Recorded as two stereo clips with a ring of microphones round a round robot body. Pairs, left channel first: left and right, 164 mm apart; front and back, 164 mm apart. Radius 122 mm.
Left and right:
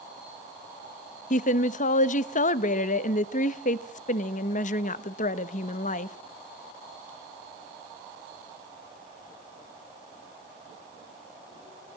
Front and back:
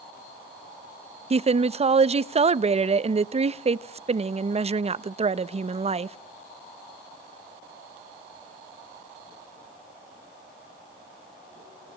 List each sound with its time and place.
1.3 s a woman speaking: 130° left, 0.7 m